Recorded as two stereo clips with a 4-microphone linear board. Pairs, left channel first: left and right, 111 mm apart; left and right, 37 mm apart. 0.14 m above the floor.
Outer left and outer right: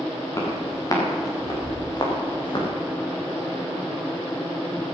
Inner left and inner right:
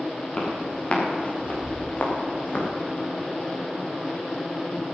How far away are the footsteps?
About 6 m.